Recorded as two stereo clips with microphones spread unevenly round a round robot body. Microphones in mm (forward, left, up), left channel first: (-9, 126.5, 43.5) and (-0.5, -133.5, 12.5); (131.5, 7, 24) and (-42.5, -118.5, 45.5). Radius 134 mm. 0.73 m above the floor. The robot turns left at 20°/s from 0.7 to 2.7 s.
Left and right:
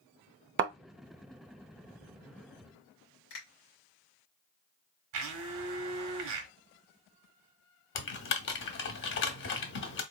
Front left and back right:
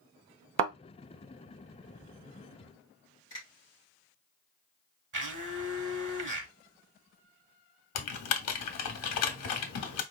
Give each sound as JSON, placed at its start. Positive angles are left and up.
{"t": 0.6, "sound": "a thud", "azimuth_deg": -140, "distance_m": 0.6}
{"t": 3.3, "sound": "a finger snap", "azimuth_deg": 110, "distance_m": 2.5}
{"t": 5.1, "sound": "a blender", "azimuth_deg": -115, "distance_m": 1.1}
{"t": 8.0, "sound": "typing on a keyboard", "azimuth_deg": 45, "distance_m": 0.8}